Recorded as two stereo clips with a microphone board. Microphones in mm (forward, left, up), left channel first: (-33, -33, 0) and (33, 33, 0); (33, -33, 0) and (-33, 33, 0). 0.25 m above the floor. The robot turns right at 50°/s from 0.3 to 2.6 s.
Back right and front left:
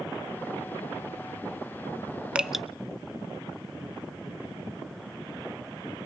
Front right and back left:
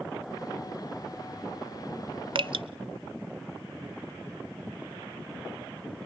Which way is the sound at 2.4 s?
120° left.